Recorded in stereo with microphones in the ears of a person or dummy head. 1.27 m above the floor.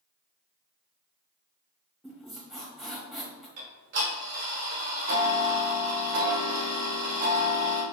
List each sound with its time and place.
2.0 s a squeak: 5° right (ahead or behind), 1.5 m
3.6 s ticking: 55° right (ahead or behind), 1.1 m